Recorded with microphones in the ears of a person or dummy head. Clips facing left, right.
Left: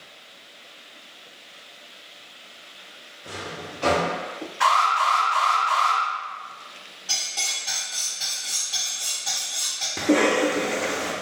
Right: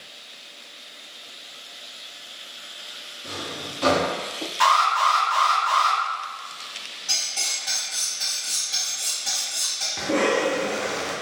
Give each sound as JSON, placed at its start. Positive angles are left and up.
{"t": 3.2, "sound": "a drawer", "side_deg": -60, "distance_m": 1.4}
{"t": 4.6, "sound": "an alarm", "side_deg": -70, "distance_m": 1.9}
{"t": 7.1, "sound": "cutlery clinking", "side_deg": -30, "distance_m": 1.4}
{"t": 10.0, "sound": "a cough", "side_deg": 45, "distance_m": 0.5}